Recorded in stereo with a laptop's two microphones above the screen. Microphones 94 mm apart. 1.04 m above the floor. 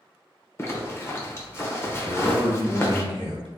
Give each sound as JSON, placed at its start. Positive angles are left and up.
{"t": 0.6, "sound": "a zipper", "side_deg": 25, "distance_m": 0.9}
{"t": 2.0, "sound": "a man speaking", "side_deg": -65, "distance_m": 1.4}